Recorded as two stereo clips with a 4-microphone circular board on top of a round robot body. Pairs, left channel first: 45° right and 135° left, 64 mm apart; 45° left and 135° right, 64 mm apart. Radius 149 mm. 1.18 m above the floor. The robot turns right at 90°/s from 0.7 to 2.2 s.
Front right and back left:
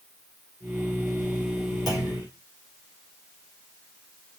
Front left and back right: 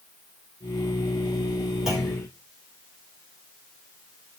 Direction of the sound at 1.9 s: 55° right.